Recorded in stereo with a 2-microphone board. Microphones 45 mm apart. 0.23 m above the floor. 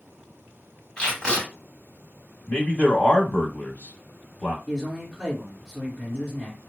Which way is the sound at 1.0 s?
20° left (ahead or behind).